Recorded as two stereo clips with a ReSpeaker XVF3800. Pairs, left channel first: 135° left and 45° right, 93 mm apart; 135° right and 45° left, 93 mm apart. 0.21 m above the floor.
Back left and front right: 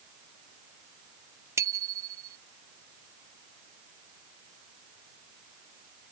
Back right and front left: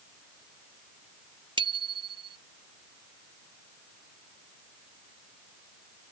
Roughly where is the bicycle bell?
Ahead.